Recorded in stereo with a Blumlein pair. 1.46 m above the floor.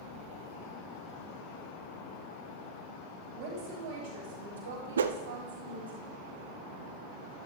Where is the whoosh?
65° right, 0.5 m.